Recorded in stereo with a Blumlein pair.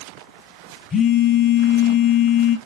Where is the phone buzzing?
20° left, 0.7 m.